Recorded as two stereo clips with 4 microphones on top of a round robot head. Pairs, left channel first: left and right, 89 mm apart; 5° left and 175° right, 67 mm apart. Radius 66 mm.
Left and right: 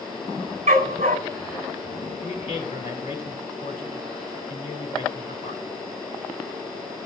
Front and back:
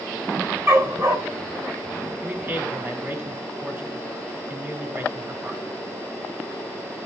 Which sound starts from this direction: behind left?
A man speaking, at 2.2 s.